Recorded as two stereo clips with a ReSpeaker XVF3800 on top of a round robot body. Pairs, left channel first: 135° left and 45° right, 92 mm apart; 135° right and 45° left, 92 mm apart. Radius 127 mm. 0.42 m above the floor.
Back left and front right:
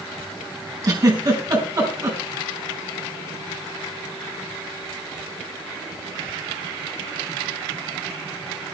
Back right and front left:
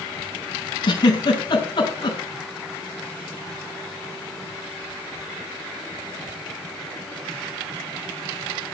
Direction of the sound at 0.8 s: 95° right.